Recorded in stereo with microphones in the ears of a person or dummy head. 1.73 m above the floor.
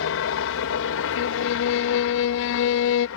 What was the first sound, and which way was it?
A helicopter, 65° left (ahead or behind).